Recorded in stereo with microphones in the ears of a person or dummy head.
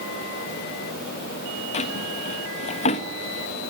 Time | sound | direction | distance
1.7 | a drawer | 40° left (ahead or behind) | 1.5 m